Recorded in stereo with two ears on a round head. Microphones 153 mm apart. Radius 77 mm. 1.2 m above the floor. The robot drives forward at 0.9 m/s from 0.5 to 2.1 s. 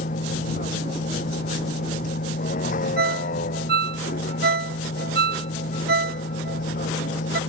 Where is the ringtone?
65° right (ahead or behind).